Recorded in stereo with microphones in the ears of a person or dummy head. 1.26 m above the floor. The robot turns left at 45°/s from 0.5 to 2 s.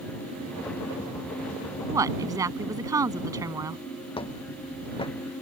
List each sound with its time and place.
1.9 s a woman speaking: 20° right (ahead or behind); by 3.8 s 15° right (ahead or behind)
4.2 s footsteps: 25° left (ahead or behind)